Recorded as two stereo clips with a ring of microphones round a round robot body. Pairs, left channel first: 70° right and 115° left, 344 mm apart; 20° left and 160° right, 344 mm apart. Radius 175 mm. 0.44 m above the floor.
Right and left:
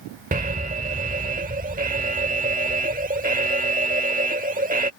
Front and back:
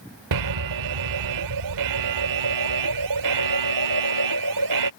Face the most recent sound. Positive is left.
turn(degrees=180)